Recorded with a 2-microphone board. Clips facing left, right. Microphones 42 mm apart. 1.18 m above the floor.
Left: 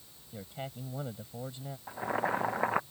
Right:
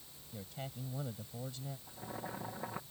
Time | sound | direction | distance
0.3 | a man speaking | 25° left (ahead or behind) | ?
1.9 | boiling | 75° left (ahead or behind) | ?